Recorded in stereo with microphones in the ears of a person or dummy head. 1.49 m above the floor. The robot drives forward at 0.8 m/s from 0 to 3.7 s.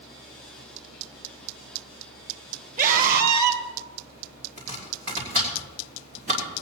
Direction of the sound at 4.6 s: 40° right (ahead or behind).